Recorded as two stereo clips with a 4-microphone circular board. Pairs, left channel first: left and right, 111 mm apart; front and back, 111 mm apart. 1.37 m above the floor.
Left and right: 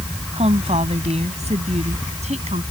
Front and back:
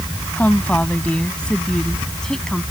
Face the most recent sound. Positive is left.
turn(degrees=-85)